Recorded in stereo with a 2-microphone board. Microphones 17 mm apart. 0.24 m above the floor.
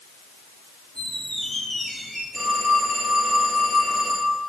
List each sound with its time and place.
0.9 s a squeak: 45° left (ahead or behind), 3 m
2.3 s a phone ringing: 20° left (ahead or behind), 4.5 m